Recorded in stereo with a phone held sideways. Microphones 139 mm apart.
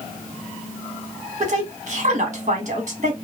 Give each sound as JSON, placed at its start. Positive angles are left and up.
{"t": 1.4, "sound": "a woman speaking", "side_deg": -55, "distance_m": 1.7}